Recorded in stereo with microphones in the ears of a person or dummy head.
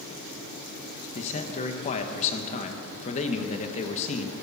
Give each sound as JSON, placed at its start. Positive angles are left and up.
{"t": 1.1, "sound": "a man speaking", "side_deg": 35, "distance_m": 1.4}